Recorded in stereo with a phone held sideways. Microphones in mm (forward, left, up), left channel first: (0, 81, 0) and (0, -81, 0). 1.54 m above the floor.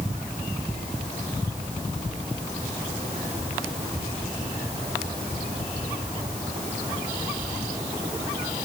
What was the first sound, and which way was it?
Only background noise.